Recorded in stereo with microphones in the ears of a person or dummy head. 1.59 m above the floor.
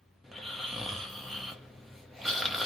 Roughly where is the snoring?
Centre.